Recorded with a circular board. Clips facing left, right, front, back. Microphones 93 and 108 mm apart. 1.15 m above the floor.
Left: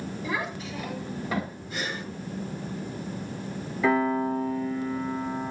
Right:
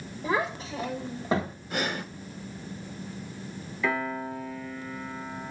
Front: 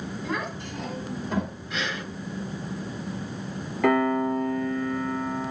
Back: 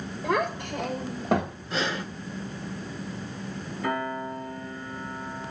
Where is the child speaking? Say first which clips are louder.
Right 5 dB, back 7 dB; 145° right, 3.5 m; by 1.6 s 155° right, 4 m.